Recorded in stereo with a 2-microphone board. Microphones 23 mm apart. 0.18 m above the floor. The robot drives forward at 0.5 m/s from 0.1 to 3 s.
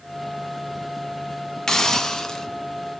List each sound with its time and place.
1.7 s a hiss: 25° left (ahead or behind), 0.9 m; by 2.5 s 20° left (ahead or behind), 1.1 m